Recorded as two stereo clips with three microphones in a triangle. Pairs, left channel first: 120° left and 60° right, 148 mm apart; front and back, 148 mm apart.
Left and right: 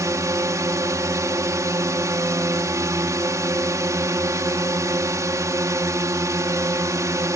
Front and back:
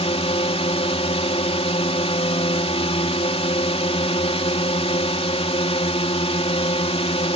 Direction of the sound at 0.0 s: 5° right.